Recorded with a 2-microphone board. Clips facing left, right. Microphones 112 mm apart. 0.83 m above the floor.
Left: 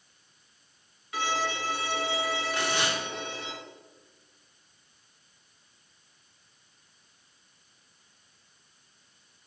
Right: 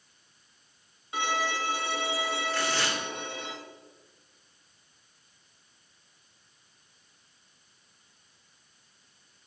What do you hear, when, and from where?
1.1 s a violin: 25° right (ahead or behind), 1.5 m
2.5 s tearing paper: 15° left (ahead or behind), 1.0 m